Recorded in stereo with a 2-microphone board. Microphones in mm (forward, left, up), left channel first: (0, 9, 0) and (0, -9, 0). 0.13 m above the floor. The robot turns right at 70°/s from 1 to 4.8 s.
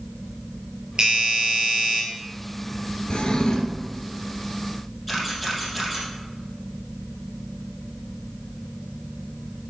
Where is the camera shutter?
Centre (ahead or behind), 3.5 m.